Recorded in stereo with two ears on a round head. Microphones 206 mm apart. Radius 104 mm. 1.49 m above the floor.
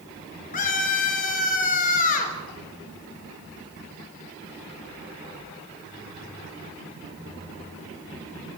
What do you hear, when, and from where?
0.5 s a scream: 40° left (ahead or behind), 4 m